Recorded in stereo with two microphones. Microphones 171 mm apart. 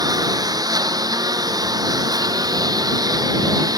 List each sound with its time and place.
0.0 s a lawn mower: 20° right (ahead or behind)